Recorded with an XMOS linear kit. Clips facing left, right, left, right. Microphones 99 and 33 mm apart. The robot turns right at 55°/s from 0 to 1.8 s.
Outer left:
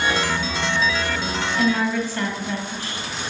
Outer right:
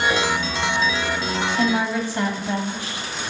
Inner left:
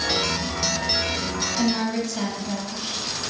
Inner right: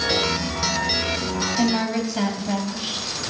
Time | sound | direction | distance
1.6 | a woman speaking | 20° right (ahead or behind) | 1.2 m